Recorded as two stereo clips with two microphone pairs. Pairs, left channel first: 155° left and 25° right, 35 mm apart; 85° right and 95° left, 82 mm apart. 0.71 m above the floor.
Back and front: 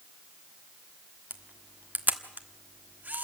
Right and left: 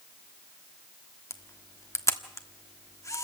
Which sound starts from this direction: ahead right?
A camera shutter, at 1.3 s.